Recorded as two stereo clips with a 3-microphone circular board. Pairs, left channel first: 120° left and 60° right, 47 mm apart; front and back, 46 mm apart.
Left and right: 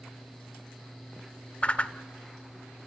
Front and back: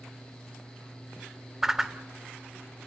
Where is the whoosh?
110° left, 0.8 m.